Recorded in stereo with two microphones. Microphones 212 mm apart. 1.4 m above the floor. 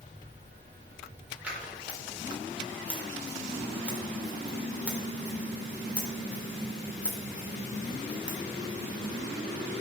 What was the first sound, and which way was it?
Scissors, 5° right (ahead or behind).